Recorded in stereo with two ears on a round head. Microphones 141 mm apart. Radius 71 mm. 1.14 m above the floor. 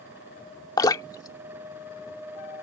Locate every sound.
0.8 s dripping: 25° left (ahead or behind)